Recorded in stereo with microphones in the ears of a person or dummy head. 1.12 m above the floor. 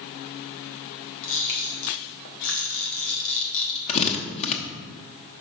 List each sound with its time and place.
1.2 s a camera shutter: 65° left (ahead or behind), 1.1 m
3.9 s a drill: 35° left (ahead or behind), 0.9 m